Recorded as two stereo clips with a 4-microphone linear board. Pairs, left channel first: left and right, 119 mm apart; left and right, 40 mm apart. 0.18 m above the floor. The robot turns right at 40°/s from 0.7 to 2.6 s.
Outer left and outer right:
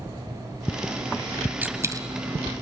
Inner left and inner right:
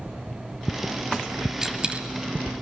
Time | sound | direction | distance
1.6 | a dropped coin | 15° right (ahead or behind) | 1.2 m